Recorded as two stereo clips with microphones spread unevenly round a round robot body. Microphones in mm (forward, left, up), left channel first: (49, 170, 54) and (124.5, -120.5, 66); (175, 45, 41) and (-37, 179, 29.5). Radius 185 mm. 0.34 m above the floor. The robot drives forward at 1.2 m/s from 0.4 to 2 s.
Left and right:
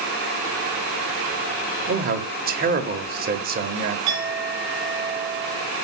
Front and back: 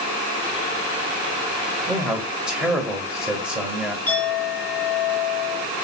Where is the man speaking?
120° right, 1.2 m; by 4.0 s 130° right, 1.3 m.